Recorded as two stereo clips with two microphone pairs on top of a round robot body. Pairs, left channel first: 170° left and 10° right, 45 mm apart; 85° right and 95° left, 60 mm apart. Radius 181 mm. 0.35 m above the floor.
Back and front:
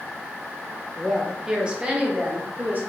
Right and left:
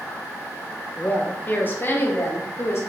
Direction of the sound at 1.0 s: 90° right.